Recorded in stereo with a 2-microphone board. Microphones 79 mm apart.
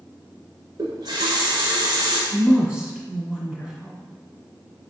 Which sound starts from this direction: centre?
A woman speaking, at 2.3 s.